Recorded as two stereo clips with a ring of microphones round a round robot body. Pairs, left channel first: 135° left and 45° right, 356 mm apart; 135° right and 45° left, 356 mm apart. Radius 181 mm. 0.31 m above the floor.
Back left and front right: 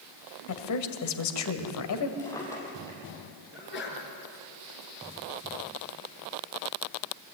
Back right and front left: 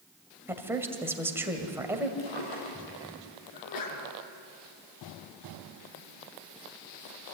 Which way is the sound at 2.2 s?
145° right.